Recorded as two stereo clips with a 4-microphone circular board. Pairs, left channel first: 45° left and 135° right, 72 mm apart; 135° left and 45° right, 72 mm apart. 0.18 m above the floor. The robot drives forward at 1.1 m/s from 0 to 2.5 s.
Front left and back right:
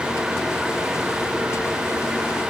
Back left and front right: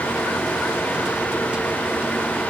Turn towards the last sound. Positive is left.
No sound to turn to.